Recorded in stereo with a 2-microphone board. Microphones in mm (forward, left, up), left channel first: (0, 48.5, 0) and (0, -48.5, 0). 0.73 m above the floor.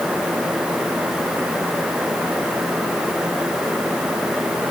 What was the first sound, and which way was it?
Only background noise.